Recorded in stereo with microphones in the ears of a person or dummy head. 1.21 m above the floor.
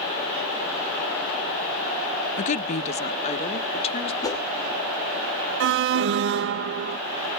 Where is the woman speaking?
40° left (ahead or behind), 0.5 m; by 4.1 s 30° left (ahead or behind), 2 m.